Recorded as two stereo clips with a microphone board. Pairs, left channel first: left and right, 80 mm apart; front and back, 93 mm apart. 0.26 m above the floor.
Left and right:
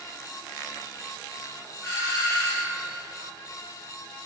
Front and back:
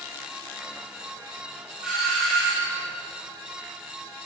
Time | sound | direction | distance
1.8 | a doorbell | 105° left | 2 m